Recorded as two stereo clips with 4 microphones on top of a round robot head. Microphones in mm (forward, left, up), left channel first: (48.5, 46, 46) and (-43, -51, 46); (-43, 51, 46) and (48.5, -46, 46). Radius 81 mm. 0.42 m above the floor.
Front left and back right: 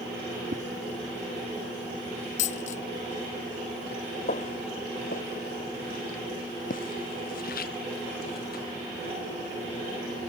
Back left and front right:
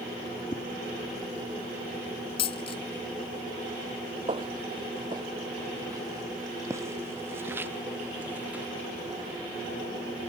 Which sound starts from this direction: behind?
A whoosh, at 0.5 s.